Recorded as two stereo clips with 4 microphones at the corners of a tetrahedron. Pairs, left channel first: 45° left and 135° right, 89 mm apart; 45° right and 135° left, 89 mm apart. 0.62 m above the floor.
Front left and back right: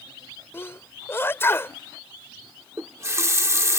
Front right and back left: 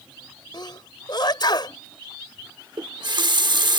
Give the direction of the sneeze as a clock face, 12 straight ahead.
12 o'clock.